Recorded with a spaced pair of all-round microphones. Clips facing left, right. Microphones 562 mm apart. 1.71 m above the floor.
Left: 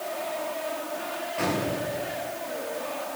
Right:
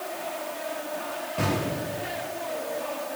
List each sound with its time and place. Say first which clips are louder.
1.4 s an explosion: even; 55° right (ahead or behind), 10 m